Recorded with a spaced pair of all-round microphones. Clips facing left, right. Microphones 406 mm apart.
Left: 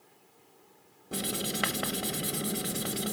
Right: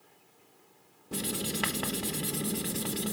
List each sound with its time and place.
1.1 s writing: 5° right (ahead or behind), 1.0 m